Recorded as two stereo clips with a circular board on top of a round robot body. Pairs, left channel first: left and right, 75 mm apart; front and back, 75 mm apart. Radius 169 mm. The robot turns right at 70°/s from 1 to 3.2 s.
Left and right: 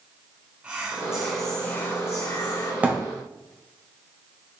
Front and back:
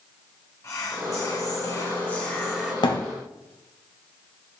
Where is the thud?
20° right, 1.5 m; by 3.0 s 5° right, 1.5 m.